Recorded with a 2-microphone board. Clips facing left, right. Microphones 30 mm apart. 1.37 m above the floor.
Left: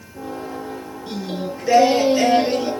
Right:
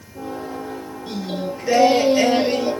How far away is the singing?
About 7.5 m.